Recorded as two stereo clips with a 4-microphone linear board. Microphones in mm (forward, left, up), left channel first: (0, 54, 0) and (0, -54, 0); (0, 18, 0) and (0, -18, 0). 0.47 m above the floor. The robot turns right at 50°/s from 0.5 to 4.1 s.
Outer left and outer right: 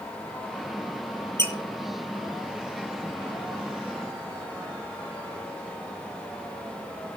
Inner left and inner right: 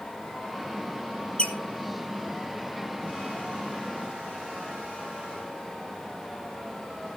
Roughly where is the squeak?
Left.